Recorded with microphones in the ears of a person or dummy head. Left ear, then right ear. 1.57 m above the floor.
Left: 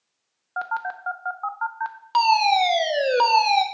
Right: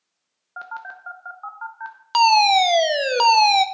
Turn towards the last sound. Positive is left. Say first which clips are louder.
# right 3 dB
turn(degrees=-20)  # may be behind; listen again after turning